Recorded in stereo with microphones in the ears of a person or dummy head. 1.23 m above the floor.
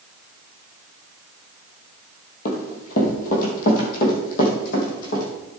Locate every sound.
2.5 s running footsteps: 45° left (ahead or behind), 2 m; by 5.2 s 50° left (ahead or behind), 3.5 m